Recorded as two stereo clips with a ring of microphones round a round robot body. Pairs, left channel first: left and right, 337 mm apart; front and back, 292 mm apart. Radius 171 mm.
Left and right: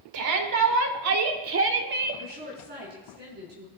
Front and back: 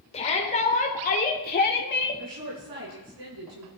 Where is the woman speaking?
150° right, 6 m.